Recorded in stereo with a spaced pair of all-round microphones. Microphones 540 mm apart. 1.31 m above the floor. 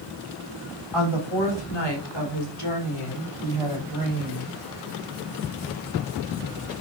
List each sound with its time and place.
0.9 s a woman speaking: 55° left (ahead or behind), 3.5 m; by 4.5 s 35° left (ahead or behind), 5 m